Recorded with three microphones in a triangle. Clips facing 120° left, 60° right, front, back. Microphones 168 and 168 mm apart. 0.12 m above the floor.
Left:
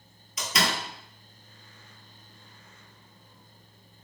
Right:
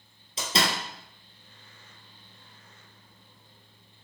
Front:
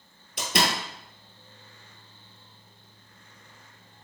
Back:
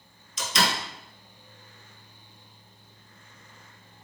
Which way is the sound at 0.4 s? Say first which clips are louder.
Right 1 dB, front 1 dB; 5° right.